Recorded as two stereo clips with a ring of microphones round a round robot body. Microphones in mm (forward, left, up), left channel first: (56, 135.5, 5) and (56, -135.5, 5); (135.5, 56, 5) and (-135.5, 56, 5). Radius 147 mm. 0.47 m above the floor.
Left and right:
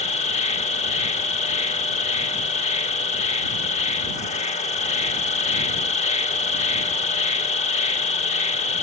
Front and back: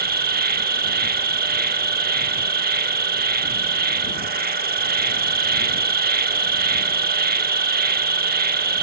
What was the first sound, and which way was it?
An insect, 145° left.